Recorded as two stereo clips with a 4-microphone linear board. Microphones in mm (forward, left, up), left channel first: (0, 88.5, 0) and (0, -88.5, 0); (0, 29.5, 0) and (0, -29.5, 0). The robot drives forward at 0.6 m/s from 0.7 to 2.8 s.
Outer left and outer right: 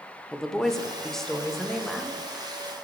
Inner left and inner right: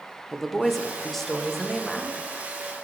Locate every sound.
0.3 s a woman speaking: 5° left (ahead or behind), 0.9 m; by 2.3 s centre (ahead or behind), 1.7 m